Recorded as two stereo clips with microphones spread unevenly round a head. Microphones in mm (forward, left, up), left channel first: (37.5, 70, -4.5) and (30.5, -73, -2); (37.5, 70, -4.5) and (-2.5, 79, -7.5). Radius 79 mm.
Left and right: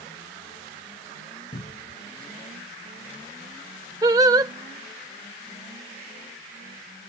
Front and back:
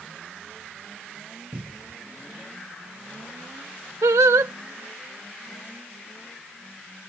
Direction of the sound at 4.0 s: 165° right.